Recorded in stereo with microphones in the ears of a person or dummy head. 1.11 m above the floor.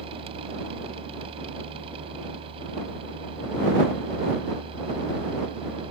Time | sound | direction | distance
0.0 | a machine running | 30° right (ahead or behind) | ?